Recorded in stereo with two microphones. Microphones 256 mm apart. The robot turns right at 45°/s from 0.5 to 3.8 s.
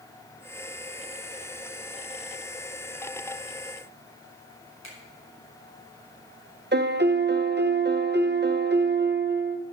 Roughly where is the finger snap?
Left.